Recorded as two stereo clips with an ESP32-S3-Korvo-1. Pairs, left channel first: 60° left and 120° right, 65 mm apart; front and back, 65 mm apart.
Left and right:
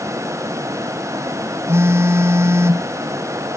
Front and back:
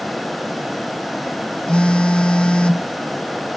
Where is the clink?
I don't hear a clink.